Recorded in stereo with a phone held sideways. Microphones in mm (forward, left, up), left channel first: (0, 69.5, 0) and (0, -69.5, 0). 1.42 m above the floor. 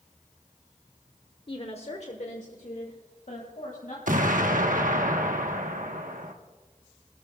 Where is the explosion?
75° right (ahead or behind), 1.1 m.